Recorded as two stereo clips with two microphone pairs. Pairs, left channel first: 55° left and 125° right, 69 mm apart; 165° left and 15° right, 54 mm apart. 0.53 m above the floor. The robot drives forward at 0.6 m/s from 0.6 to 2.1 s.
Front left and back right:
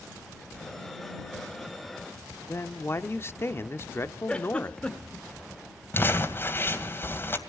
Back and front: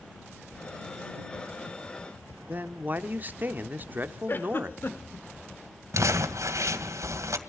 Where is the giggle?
130° left, 1.2 m.